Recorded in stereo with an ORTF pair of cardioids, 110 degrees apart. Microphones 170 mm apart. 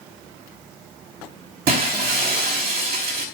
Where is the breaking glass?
60° right, 4 m.